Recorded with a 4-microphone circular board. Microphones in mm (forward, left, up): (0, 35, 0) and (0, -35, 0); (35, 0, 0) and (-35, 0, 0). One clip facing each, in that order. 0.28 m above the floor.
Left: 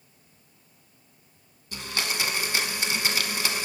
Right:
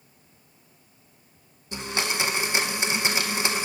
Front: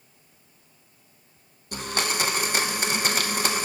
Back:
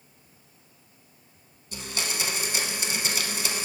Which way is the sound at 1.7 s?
25° right.